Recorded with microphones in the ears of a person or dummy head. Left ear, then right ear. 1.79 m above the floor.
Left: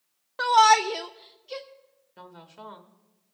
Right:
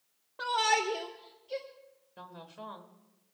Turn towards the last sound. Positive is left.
turn(degrees=15)  # may be behind; listen again after turning